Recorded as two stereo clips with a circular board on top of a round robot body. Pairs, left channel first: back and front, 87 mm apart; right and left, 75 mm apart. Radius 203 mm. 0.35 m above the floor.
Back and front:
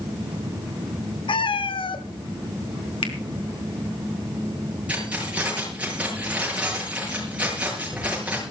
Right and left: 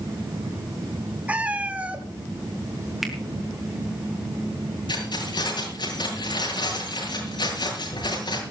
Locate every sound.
1.3 s a cat meowing: 165° left, 1.7 m
3.0 s a finger snap: straight behind, 4 m
4.9 s keys jangling: 75° right, 7.5 m